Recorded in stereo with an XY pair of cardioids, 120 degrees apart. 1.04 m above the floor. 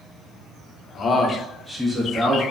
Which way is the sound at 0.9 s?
45° left.